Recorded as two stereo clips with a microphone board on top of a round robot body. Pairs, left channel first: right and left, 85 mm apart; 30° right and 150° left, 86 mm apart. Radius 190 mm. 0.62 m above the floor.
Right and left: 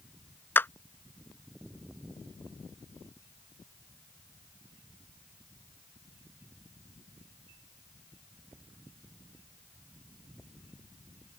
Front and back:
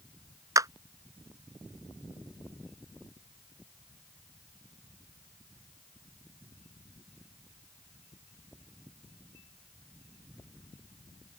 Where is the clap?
160° right.